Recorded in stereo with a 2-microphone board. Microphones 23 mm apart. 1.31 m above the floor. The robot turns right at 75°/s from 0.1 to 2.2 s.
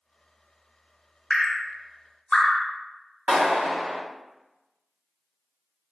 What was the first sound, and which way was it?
Dripping, 25° left (ahead or behind).